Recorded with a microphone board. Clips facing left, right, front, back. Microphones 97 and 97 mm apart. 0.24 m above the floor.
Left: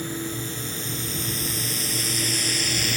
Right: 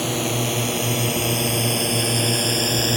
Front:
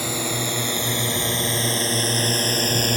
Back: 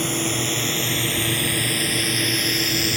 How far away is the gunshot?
I don't hear a gunshot.